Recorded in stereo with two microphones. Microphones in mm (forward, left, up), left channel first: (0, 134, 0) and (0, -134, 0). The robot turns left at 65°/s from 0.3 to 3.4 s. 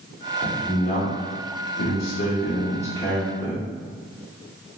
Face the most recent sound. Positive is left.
turn(degrees=-10)